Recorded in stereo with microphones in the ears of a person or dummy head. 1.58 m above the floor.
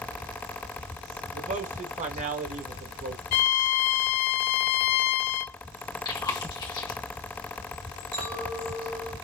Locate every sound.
1.3 s a man speaking: 35° right (ahead or behind), 1.2 m
3.3 s a violin: 35° left (ahead or behind), 0.6 m
6.0 s chewing: 25° left (ahead or behind), 1.4 m
8.1 s a clink: 55° right (ahead or behind), 2.5 m